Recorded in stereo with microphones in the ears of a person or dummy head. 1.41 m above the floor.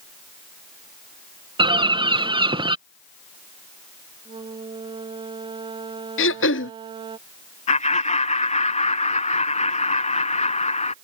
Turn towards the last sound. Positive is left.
turn(degrees=40)  # may be behind; listen again after turning